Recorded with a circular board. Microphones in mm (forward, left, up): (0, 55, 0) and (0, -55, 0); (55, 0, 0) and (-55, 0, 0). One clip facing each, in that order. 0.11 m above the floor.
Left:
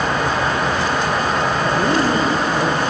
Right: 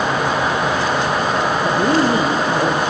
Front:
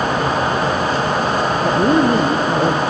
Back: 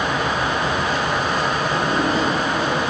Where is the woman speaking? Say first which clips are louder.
Right 3 dB, front 6 dB; 15° right, 2.5 m.